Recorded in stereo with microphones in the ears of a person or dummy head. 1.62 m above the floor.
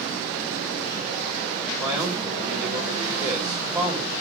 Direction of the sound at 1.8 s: 15° right (ahead or behind).